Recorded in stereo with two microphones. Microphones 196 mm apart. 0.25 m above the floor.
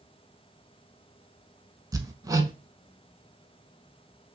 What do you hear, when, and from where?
1.9 s hammering: 20° right (ahead or behind), 0.6 m